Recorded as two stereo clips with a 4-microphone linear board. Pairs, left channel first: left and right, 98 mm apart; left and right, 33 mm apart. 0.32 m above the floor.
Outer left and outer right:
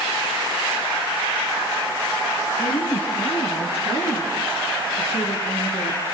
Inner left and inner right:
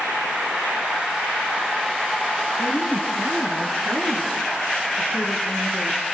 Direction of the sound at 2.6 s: 60° left (ahead or behind).